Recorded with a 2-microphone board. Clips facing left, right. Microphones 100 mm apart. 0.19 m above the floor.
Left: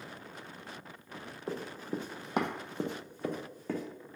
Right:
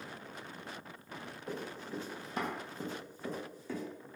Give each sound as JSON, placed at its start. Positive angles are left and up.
{"t": 1.5, "sound": "running footsteps", "side_deg": 35, "distance_m": 0.7}